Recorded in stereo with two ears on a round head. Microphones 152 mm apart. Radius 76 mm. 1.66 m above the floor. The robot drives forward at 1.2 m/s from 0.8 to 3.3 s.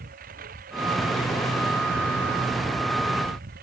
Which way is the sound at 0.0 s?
55° right (ahead or behind).